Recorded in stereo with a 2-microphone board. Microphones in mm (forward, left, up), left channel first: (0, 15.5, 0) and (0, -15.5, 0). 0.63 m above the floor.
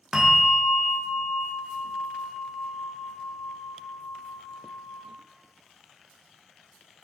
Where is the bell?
10° right (ahead or behind), 0.7 m.